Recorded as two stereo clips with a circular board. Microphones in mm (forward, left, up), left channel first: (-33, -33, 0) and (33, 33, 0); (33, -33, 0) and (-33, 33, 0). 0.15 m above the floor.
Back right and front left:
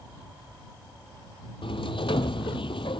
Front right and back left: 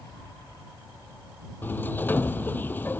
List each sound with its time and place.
1.6 s a sliding door: 115° right